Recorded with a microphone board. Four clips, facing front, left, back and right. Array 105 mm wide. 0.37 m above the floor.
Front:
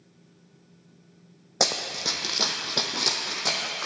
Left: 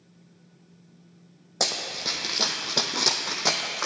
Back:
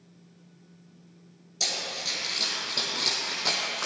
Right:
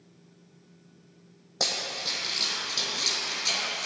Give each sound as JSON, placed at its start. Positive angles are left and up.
{"t": 1.6, "sound": "running footsteps", "azimuth_deg": 10, "distance_m": 1.1}